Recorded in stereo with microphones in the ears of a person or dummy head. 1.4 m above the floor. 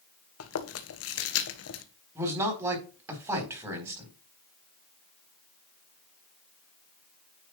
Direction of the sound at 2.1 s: 20° right (ahead or behind).